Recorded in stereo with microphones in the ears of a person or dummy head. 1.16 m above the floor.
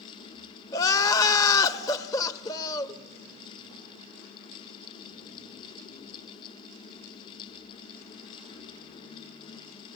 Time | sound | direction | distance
0.7 | crying | 25° left (ahead or behind) | 0.9 m